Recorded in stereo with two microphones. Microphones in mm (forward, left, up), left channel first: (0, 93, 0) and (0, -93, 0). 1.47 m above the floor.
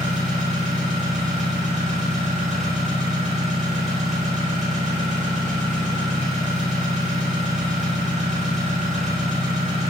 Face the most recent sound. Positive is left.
turn(degrees=-40)  # may be behind; listen again after turning